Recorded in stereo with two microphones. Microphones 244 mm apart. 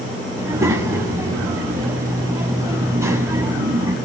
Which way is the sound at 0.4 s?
10° right (ahead or behind).